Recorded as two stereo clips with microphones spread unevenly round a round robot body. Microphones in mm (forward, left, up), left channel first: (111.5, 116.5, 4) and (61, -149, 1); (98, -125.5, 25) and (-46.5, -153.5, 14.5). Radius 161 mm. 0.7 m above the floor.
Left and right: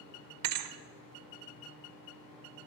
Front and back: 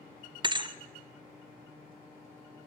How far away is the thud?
About 1.1 m.